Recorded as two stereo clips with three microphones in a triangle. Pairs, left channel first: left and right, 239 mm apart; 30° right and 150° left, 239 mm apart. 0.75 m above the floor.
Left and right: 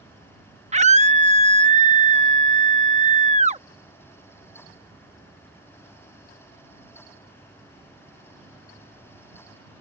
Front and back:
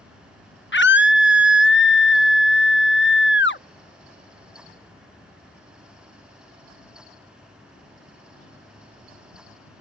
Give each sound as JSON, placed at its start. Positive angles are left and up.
{"t": 0.7, "sound": "a scream", "azimuth_deg": -35}